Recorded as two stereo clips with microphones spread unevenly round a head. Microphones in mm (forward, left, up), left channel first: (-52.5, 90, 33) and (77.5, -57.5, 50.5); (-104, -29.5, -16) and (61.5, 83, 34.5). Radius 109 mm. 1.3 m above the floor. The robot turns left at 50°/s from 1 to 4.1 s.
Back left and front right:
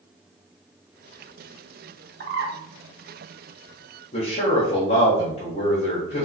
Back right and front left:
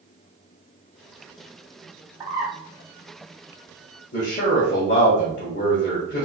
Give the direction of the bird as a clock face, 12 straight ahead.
1 o'clock.